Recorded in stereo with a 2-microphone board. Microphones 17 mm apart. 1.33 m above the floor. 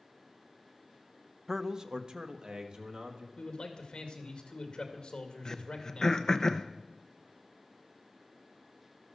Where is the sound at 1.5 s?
20° right (ahead or behind), 0.7 m; by 3.3 s 55° right (ahead or behind), 2.5 m.